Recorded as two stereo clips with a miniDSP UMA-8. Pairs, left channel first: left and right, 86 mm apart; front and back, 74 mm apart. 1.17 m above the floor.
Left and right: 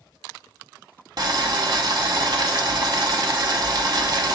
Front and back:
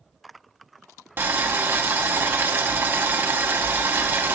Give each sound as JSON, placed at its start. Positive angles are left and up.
{"t": 1.2, "sound": "boiling", "azimuth_deg": -120, "distance_m": 1.0}